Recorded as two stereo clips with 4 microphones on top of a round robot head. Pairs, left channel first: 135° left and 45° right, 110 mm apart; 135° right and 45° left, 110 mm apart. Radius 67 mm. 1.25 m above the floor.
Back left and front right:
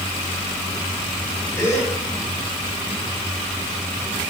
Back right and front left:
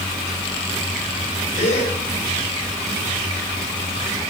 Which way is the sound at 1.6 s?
160° right.